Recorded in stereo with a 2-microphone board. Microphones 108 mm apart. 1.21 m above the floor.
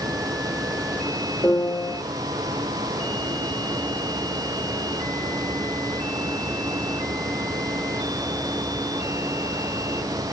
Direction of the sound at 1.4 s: 20° left (ahead or behind).